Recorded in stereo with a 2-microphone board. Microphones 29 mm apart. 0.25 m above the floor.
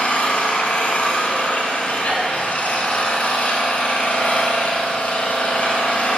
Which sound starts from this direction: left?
An engine running, at 0.0 s.